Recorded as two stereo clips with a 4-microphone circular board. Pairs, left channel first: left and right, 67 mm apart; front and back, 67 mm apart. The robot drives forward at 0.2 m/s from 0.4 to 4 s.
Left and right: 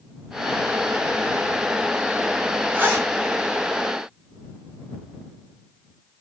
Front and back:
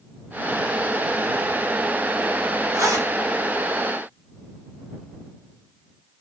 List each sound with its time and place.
2.7 s a zipper: 145° right, 1.4 m; by 3.1 s 150° right, 1.4 m